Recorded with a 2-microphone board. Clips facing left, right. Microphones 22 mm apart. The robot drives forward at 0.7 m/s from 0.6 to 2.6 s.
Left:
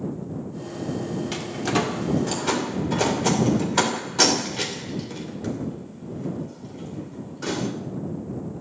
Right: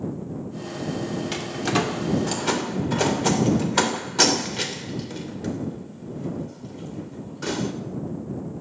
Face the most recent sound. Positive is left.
turn(degrees=-10)  # may be behind; listen again after turning